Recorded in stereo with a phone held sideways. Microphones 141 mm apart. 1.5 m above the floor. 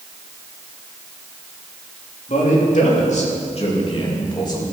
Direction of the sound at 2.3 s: 70° left (ahead or behind).